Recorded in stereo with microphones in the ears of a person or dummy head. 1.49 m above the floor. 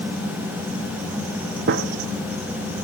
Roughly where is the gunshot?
Right.